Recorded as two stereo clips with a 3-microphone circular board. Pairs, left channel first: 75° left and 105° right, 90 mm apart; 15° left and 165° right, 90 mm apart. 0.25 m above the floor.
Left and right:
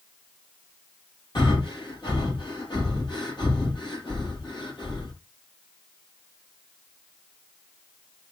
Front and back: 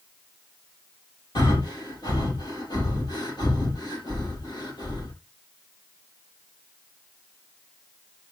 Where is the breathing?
45° left, 4 m.